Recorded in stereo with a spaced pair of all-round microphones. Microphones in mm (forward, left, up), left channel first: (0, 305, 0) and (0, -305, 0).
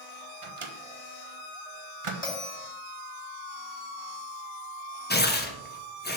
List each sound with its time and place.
0.4 s a microwave: 55° right (ahead or behind), 0.8 m
2.2 s a bell: 70° left (ahead or behind), 3 m
5.1 s tearing paper: 15° left (ahead or behind), 0.8 m